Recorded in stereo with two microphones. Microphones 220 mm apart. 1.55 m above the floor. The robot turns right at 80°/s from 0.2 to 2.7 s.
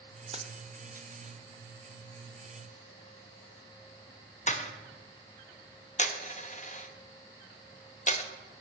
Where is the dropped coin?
30° right (ahead or behind), 1.0 m; by 8.2 s 35° left (ahead or behind), 1.0 m.